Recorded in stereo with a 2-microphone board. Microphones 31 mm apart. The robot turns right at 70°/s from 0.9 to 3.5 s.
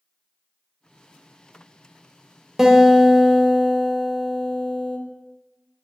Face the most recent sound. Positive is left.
turn(degrees=10)  # may be behind; listen again after turning